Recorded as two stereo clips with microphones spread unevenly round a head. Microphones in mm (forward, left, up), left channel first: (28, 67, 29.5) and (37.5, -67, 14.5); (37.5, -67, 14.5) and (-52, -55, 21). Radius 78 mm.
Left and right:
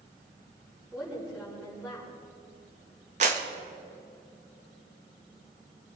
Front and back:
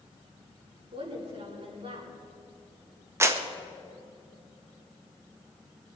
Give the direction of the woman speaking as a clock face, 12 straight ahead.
6 o'clock.